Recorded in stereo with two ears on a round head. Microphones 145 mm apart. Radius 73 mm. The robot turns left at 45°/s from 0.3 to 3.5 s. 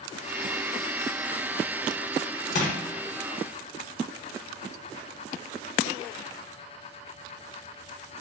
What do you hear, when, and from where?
2.5 s crushing: 45° left (ahead or behind), 0.8 m